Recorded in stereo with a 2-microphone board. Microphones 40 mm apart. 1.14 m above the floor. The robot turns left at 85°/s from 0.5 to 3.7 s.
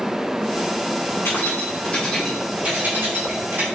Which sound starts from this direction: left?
Keys jangling, at 1.2 s.